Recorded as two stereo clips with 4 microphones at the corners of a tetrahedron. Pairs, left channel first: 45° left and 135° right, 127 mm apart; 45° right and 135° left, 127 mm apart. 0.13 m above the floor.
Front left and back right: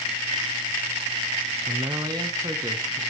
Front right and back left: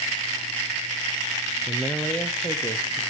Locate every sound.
1.7 s a man speaking: 135° right, 1.3 m; by 3.0 s 80° right, 1.8 m